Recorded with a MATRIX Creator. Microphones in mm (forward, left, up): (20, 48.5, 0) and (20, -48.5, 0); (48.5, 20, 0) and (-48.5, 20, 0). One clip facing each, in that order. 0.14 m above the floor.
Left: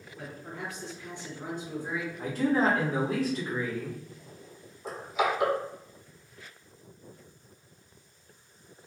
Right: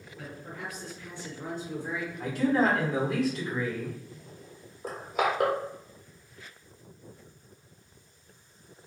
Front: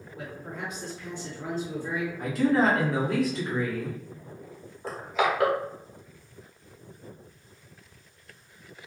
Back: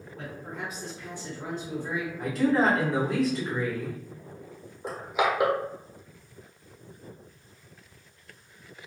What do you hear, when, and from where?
0.2 s a man speaking: 80° left, 1.7 m; by 2.1 s 155° left, 1.7 m
2.2 s a man speaking: 90° left, 1.5 m
4.8 s crushing: 110° right, 0.9 m